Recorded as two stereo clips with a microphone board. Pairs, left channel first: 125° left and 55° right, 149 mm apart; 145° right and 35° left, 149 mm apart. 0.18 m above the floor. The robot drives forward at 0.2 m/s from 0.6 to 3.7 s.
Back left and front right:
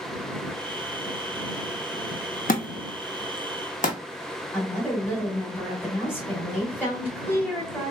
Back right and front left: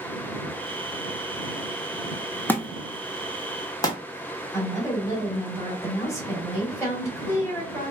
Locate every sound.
2.5 s a thud: 140° left, 0.5 m; by 4.0 s 150° left, 0.7 m
4.5 s a woman speaking: 175° left, 1.6 m